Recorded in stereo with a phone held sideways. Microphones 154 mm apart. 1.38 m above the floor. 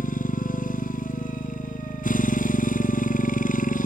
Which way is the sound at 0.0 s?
60° left (ahead or behind).